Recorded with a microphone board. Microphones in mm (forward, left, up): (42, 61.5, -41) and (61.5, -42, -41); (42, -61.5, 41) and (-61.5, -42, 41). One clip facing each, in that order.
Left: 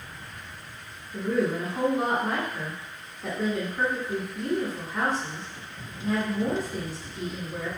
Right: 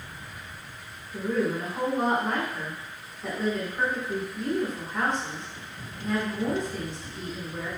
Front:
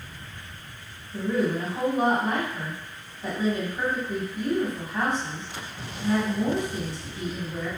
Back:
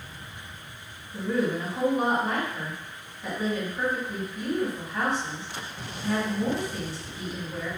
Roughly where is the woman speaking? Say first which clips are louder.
Left 1 dB, front 1 dB; ahead left.